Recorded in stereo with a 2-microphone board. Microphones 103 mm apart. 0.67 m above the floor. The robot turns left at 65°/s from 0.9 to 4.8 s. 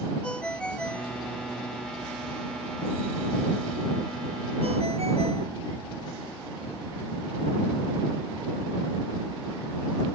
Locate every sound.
0.2 s a ringtone: 10° left (ahead or behind); by 5.6 s 85° right